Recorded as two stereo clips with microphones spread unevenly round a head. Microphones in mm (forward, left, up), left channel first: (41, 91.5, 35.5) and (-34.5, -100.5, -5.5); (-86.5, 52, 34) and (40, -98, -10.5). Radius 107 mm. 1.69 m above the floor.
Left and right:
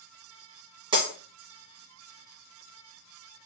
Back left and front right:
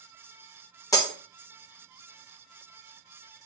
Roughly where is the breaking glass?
Behind.